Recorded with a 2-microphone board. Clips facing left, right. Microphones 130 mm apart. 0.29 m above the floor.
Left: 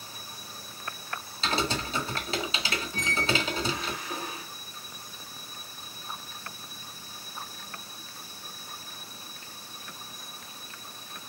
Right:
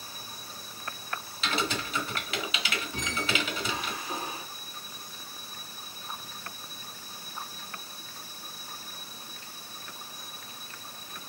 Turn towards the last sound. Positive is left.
turn(degrees=-30)  # may be behind; listen again after turning